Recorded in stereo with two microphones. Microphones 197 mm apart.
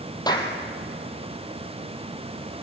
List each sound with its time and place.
0.3 s a clap: 20° left (ahead or behind), 3 m